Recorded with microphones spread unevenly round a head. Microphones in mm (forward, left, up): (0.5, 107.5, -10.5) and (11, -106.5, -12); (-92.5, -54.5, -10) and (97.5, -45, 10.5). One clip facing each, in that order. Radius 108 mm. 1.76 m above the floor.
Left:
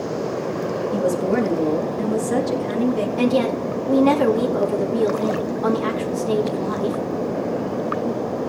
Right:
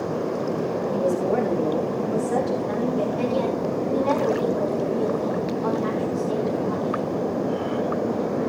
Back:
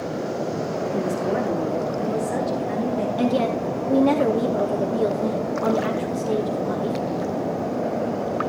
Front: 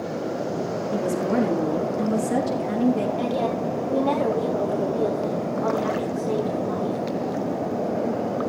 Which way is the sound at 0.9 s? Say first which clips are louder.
Left 3 dB, front 2 dB; 25° left.